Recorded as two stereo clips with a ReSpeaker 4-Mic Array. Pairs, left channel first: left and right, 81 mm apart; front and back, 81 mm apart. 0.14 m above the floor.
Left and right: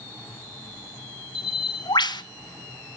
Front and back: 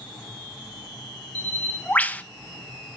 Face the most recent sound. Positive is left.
turn(degrees=70)